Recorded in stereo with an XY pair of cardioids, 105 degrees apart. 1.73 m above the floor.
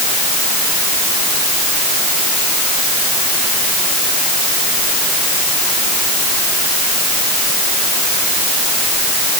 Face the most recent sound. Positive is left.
No sound to turn to.